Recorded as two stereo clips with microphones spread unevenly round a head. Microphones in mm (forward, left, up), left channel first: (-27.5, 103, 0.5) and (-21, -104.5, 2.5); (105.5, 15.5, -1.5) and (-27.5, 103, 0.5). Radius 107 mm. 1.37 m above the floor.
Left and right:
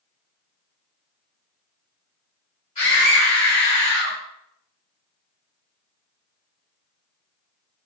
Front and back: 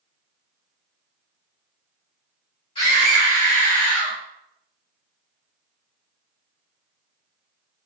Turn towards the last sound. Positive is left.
turn(degrees=55)